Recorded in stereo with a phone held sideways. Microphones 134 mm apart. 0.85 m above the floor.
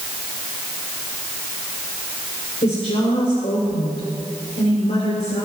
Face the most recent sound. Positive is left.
turn(degrees=65)  # may be behind; listen again after turning